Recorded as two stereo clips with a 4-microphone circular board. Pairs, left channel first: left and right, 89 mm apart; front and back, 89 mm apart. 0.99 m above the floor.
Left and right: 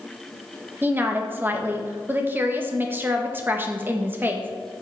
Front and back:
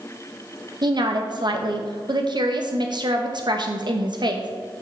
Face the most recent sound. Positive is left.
turn(degrees=-155)